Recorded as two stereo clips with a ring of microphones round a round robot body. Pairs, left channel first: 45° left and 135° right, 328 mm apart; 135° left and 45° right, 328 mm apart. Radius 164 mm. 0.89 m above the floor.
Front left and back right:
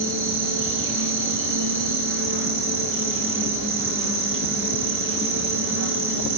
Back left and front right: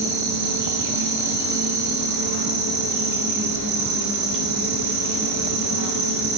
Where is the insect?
80° right, 0.9 m.